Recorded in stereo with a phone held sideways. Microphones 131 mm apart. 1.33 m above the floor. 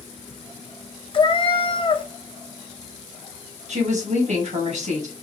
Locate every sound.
1.1 s a cat meowing: 40° left (ahead or behind), 0.6 m
3.7 s a woman speaking: 60° right (ahead or behind), 1.7 m